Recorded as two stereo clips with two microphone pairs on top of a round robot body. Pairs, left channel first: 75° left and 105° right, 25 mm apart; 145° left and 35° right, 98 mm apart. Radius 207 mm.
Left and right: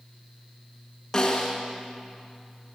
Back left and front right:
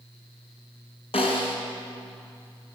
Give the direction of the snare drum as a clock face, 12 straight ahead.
7 o'clock.